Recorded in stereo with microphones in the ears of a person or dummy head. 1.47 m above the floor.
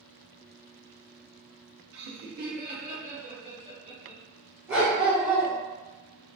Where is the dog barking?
15° right (ahead or behind), 1.1 m.